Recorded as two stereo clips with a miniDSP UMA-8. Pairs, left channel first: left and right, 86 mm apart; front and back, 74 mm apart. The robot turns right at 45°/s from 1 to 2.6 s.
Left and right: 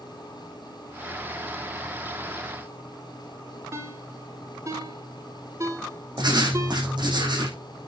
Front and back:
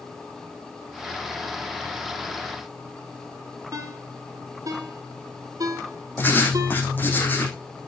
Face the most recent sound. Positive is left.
turn(degrees=-60)